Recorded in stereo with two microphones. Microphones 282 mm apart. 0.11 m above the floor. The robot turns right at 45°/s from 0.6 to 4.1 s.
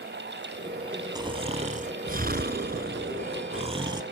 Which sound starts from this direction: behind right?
Snoring, at 1.1 s.